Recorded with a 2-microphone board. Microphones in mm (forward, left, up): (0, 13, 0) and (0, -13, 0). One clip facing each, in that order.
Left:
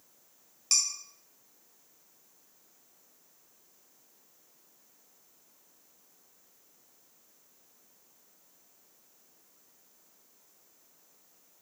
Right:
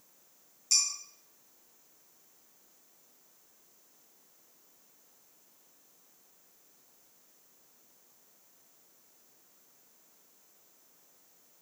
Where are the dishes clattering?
55° left (ahead or behind), 5 m.